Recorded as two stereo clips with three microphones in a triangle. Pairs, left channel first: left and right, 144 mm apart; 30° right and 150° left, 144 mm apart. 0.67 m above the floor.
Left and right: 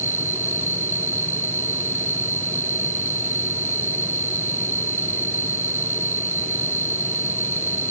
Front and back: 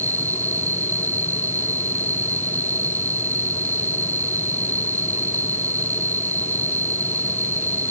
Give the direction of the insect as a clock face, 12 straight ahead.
3 o'clock.